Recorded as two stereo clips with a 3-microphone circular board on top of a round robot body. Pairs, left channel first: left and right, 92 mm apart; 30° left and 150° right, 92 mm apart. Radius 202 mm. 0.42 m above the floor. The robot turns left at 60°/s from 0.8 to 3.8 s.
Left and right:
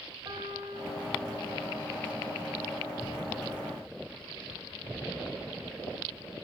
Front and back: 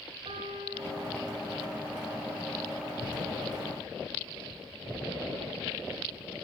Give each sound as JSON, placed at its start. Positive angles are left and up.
{"t": 0.2, "sound": "a piano", "azimuth_deg": -130, "distance_m": 1.8}